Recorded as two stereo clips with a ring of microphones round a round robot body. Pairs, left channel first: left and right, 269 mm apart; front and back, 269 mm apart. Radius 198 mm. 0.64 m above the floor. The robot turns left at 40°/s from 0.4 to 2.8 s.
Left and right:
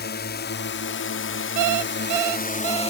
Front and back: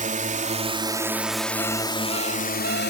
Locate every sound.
0.0 s a drone: 130° left; by 2.9 s 35° left
1.6 s an alarm clock: 75° right; by 2.9 s 125° right